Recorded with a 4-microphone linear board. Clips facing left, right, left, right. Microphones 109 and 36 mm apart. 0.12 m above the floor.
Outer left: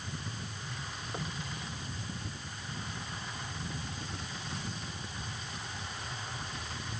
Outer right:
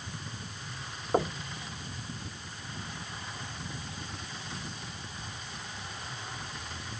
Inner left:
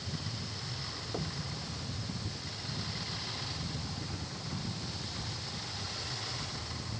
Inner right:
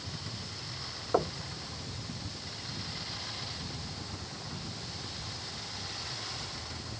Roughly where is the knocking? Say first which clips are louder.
Outer right 13 dB, inner right 11 dB; right.